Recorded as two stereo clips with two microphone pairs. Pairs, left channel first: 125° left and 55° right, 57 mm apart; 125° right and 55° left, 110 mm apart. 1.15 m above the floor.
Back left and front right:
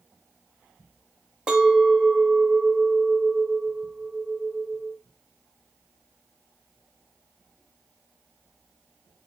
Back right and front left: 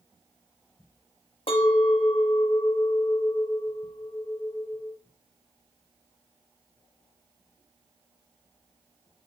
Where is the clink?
125° right, 0.8 m.